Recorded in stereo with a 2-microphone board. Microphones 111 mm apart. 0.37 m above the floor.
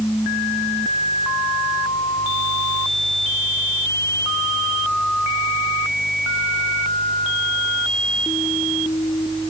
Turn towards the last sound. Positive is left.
No sound to turn to.